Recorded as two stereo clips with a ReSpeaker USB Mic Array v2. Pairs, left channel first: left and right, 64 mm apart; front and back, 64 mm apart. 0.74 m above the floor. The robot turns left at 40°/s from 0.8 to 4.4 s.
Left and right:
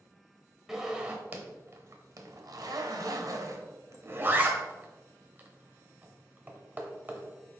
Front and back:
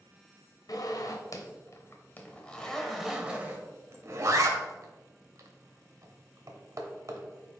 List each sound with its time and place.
0.7 s a zipper: 5° right, 0.8 m; by 7.6 s 150° right, 0.8 m